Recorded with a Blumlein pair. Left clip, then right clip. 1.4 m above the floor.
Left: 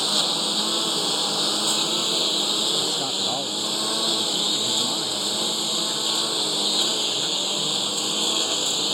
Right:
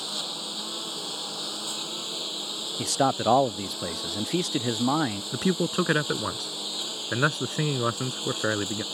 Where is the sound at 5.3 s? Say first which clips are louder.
Left 3 dB; 50° right.